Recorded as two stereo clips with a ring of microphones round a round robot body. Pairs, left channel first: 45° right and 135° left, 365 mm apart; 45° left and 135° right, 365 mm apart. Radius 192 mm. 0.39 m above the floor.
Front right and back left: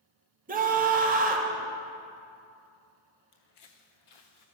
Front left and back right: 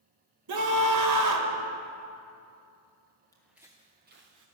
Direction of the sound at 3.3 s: 35° right.